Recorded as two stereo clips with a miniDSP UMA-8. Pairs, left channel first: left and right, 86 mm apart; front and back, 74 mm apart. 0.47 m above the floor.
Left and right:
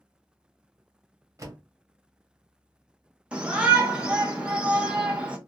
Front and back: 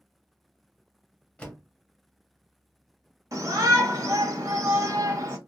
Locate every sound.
1.4 s a door slam: 70° right, 0.9 m
3.3 s a shout: 165° right, 1.0 m